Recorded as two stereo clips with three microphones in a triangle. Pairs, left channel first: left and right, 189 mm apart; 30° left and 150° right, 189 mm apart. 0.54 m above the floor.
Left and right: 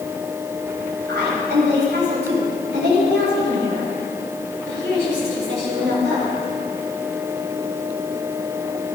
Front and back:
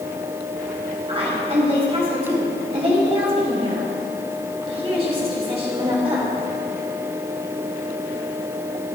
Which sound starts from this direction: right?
A woman speaking, at 1.1 s.